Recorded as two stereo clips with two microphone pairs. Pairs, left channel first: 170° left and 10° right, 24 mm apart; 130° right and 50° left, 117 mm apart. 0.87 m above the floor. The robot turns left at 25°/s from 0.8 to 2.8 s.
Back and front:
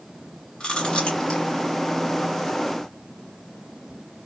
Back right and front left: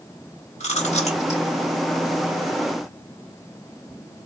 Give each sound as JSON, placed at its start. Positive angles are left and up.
{"t": 0.6, "sound": "chewing", "azimuth_deg": -140, "distance_m": 1.2}